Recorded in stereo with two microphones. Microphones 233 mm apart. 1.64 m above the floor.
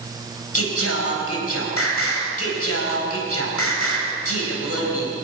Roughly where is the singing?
Left.